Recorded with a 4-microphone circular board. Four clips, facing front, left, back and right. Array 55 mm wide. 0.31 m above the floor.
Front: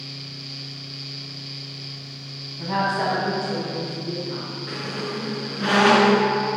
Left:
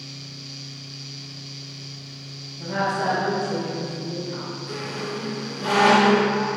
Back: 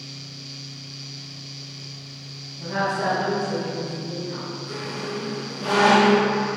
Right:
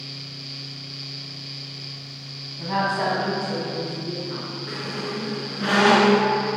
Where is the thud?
No thud in this recording.